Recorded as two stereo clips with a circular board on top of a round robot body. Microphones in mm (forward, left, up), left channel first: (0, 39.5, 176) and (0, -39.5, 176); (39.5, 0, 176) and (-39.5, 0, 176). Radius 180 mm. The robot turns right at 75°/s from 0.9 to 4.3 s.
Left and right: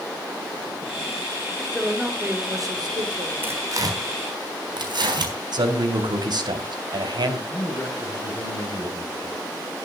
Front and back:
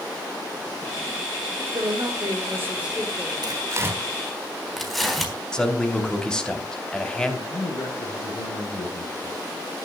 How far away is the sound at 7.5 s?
About 9.5 m.